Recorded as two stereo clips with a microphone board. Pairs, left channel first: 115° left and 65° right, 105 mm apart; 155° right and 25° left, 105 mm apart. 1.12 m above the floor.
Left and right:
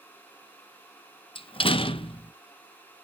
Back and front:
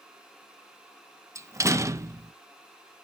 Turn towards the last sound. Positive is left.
turn(degrees=85)